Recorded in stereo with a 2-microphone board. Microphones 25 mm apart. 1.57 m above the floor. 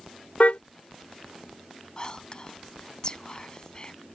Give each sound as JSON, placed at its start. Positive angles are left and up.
{"t": 0.4, "sound": "a car horn", "side_deg": 70}
{"t": 2.0, "sound": "whispering", "side_deg": 30}